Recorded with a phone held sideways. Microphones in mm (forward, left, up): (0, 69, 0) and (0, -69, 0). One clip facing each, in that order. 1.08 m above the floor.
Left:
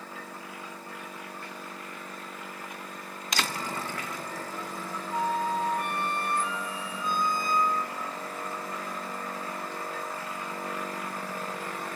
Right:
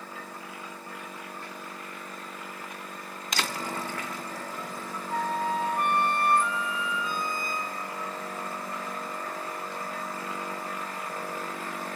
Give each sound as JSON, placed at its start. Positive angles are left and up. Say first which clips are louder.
{"t": 5.1, "sound": "a flute", "louder": "even", "side_deg": -60, "distance_m": 0.8}